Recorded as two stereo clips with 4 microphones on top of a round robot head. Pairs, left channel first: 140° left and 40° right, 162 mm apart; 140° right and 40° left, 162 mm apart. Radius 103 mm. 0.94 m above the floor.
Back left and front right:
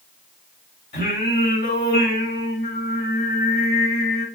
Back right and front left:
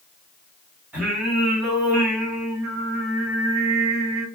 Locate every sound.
0.9 s singing: 120° left, 3 m